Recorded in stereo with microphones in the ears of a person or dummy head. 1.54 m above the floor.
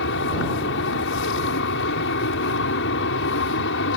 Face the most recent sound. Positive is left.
turn(degrees=70)  # may be behind; listen again after turning